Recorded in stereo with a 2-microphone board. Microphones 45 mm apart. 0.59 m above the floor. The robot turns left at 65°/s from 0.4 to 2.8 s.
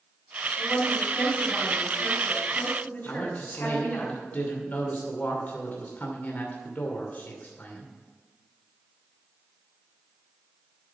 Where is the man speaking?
40° left (ahead or behind), 2.5 m.